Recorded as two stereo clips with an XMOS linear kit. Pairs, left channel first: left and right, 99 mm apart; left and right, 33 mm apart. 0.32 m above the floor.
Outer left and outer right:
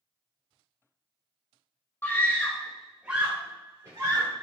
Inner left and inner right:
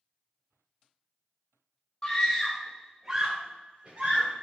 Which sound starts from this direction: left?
A scream, at 2.0 s.